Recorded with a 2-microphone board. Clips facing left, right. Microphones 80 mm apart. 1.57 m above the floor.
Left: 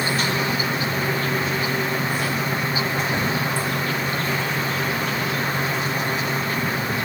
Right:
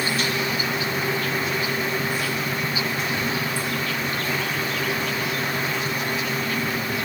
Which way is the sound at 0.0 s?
30° left (ahead or behind).